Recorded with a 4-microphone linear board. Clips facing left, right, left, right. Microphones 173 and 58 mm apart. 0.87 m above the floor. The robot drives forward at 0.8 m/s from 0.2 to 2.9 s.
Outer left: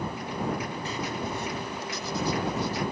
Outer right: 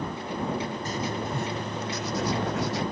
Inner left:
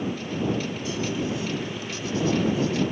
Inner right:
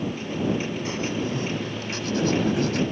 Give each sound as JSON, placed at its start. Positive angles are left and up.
{"t": 0.8, "sound": "writing", "side_deg": -45}